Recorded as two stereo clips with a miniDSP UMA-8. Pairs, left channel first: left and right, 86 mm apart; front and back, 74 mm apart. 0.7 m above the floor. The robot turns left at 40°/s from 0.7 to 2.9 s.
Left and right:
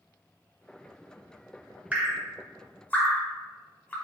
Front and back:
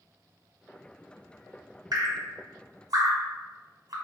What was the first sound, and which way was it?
Dripping, 160° right.